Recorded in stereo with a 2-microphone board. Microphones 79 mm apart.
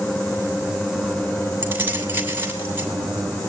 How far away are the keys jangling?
About 2.5 m.